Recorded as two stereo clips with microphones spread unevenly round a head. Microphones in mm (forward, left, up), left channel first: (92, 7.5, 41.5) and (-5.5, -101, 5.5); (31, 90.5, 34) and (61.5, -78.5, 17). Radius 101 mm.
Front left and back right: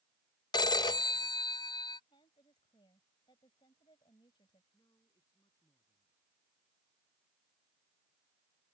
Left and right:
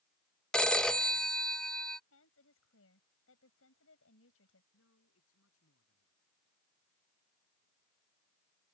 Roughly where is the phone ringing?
Ahead left.